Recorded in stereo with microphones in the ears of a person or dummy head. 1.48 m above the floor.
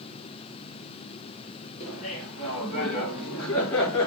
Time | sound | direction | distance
1.8 | laughter | 40° left (ahead or behind) | 4 m